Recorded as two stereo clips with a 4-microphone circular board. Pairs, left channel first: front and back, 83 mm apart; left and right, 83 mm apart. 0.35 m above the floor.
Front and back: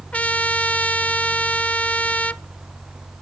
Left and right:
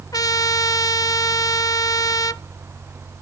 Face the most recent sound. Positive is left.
turn(degrees=70)